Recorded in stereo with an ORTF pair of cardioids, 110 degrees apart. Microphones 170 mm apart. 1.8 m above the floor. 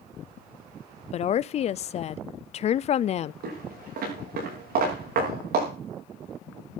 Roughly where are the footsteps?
Right.